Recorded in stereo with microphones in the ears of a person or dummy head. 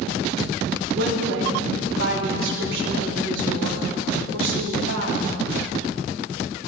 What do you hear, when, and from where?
0.9 s a woman speaking: 75° right (ahead or behind), 3.5 m